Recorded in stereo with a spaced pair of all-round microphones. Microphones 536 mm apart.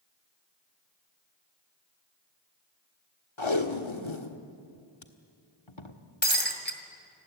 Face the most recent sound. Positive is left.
turn(degrees=20)  # may be behind; listen again after turning